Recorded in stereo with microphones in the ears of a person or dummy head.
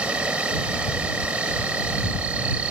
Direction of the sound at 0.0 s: 10° right (ahead or behind).